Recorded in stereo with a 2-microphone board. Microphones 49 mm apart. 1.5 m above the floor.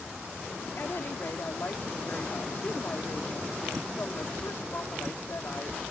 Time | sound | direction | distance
0.8 | a woman speaking | 50° left (ahead or behind) | ?